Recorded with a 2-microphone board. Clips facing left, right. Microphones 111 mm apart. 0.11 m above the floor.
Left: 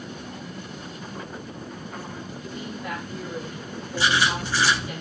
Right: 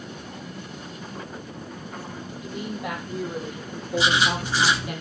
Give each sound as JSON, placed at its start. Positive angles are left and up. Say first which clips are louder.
{"t": 2.4, "sound": "a woman speaking", "louder": "right 4 dB", "side_deg": -70, "distance_m": 4.5}
{"t": 4.0, "sound": "writing", "louder": "right 1 dB", "side_deg": -20, "distance_m": 1.8}